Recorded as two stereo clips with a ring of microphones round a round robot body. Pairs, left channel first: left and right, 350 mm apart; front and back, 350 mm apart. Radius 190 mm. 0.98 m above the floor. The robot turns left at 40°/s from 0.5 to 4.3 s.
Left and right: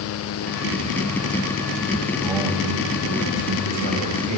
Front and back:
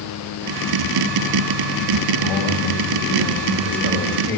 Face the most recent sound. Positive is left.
turn(degrees=-85)